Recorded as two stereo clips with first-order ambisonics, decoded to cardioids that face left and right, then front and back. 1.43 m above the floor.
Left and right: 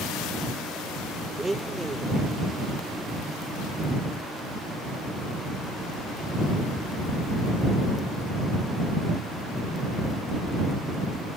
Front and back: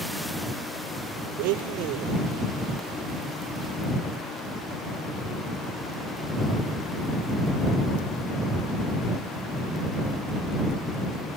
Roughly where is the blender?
Behind.